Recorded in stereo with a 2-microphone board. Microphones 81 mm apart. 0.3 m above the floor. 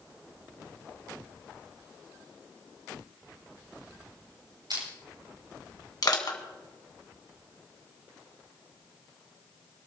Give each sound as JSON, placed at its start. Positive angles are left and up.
{"t": 4.7, "sound": "crushing", "side_deg": -70, "distance_m": 5.5}
{"t": 6.0, "sound": "crushing", "side_deg": 55, "distance_m": 2.0}